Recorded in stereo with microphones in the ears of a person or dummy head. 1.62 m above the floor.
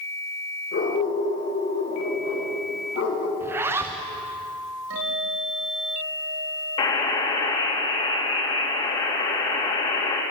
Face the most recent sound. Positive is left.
turn(degrees=30)  # may be behind; listen again after turning